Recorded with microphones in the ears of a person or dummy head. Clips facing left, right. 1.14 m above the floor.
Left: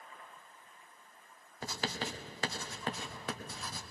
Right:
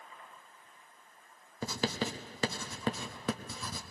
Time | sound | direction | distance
1.6 | writing | 80° right | 1.0 m